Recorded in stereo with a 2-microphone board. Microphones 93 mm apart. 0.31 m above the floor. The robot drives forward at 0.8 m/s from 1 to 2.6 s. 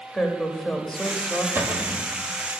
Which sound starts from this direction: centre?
A woman speaking, at 0.1 s.